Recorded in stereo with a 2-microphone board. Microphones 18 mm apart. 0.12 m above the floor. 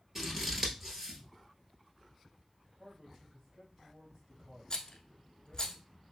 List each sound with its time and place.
0.1 s scissors: 20° right (ahead or behind), 1.2 m
2.8 s a man speaking: 20° right (ahead or behind), 2.5 m
4.7 s a rattle: 35° left (ahead or behind), 0.7 m